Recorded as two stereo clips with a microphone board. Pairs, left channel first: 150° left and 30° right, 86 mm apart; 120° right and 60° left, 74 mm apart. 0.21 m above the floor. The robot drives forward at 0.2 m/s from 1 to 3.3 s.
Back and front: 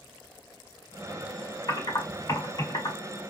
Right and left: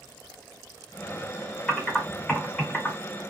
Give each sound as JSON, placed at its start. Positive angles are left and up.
{"t": 1.7, "sound": "typing on a keyboard", "azimuth_deg": 170, "distance_m": 1.5}